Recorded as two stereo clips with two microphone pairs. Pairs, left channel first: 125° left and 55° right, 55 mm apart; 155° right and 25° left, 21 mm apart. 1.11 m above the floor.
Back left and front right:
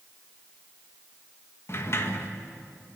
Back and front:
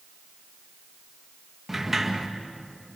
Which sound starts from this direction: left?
A sliding door, at 1.7 s.